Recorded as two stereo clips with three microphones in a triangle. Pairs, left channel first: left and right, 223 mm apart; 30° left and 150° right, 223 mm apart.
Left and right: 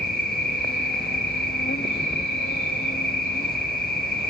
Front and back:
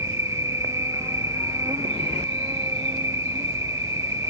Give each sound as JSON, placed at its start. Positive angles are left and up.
{"t": 0.0, "sound": "an insect", "azimuth_deg": 135}